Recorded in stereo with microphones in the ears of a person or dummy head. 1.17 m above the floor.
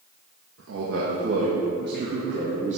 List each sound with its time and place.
0.6 s a man speaking: 70° right (ahead or behind), 1.8 m; by 2.8 s 40° right (ahead or behind), 1.8 m